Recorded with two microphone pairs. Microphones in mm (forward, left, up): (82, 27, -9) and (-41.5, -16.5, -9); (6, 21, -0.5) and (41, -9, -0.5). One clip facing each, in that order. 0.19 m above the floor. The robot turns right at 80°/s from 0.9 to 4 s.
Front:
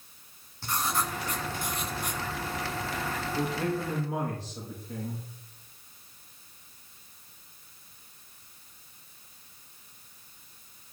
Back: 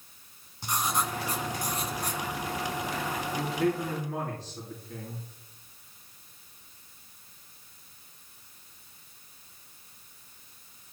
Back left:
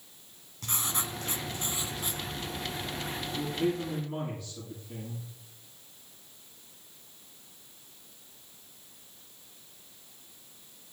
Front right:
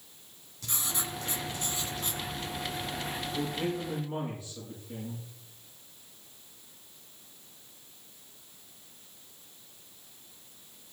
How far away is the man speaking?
About 5.5 m.